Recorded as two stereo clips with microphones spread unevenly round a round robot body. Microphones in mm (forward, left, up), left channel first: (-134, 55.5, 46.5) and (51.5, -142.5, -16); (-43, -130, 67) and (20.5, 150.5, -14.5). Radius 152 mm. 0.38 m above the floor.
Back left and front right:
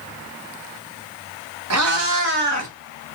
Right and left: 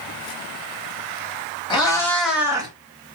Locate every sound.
1.7 s a cat meowing: 25° right, 1.4 m; by 2.7 s 10° left, 1.2 m